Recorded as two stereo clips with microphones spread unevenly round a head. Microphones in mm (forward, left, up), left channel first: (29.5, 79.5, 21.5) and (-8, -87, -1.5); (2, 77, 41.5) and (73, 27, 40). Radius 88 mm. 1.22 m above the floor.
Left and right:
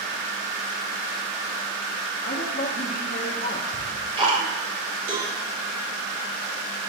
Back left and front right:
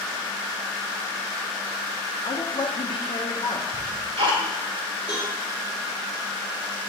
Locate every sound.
2.2 s a woman speaking: 125° left, 0.9 m
3.7 s ticking: 40° right, 2 m
5.1 s a cowbell: 115° right, 1.8 m